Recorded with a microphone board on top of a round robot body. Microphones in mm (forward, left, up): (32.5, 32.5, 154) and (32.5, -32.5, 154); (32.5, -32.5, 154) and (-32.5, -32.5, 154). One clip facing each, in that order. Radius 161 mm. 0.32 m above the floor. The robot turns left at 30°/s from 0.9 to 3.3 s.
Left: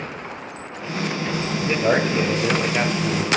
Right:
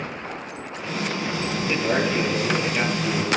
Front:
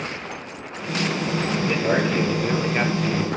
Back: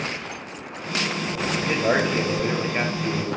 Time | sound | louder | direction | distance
1.6 | a man speaking | left 3 dB, back 1 dB | 130° left | 3 m